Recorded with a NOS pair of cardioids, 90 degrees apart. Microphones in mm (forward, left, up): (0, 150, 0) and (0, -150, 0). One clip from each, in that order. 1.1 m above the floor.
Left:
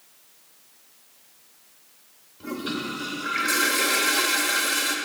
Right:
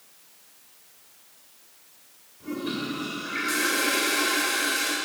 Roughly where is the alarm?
I don't hear an alarm.